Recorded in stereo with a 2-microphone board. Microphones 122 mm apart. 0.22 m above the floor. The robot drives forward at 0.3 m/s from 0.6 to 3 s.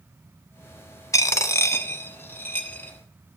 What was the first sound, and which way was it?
A dropped coin, 25° left (ahead or behind).